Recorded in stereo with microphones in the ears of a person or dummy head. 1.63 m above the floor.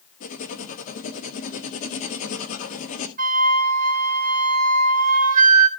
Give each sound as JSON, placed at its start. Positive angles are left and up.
{"t": 0.2, "sound": "writing", "side_deg": 40, "distance_m": 1.5}
{"t": 3.2, "sound": "a flute", "side_deg": -45, "distance_m": 1.9}